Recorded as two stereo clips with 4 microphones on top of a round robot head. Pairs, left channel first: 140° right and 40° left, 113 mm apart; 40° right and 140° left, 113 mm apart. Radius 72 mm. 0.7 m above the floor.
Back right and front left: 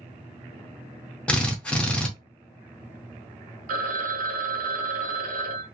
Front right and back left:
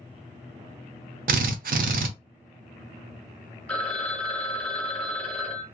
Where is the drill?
140° left, 0.5 m.